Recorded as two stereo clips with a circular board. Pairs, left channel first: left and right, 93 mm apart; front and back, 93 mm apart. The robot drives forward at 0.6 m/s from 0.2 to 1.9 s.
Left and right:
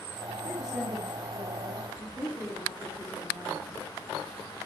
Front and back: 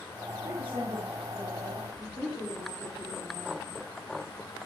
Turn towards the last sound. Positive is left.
turn(degrees=-175)